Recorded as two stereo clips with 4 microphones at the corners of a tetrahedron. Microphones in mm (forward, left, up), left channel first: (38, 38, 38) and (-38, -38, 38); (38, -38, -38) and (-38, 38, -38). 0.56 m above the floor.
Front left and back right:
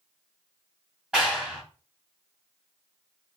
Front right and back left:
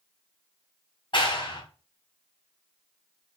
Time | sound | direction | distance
1.1 | a clap | 55° right | 1.2 m